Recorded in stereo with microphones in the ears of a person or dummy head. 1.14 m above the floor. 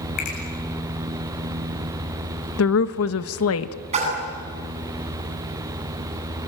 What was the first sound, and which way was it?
A finger snap, 40° left (ahead or behind).